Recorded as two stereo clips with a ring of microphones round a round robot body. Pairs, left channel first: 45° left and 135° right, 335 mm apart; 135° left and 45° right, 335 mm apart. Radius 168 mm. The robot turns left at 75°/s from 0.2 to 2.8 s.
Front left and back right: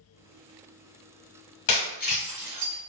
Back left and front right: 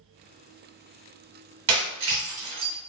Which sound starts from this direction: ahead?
Breaking glass, at 1.7 s.